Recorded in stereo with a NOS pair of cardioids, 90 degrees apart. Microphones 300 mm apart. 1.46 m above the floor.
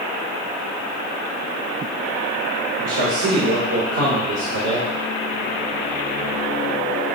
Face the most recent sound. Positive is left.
turn(degrees=-55)